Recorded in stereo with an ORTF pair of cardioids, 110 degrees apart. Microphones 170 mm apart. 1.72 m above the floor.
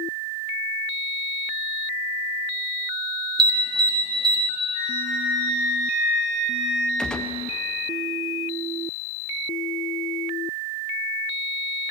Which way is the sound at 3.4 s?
30° right.